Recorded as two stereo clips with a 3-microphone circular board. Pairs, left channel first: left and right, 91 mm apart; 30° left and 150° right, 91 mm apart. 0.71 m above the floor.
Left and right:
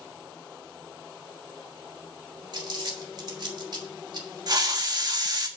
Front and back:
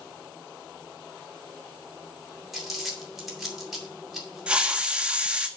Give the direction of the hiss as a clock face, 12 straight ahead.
3 o'clock.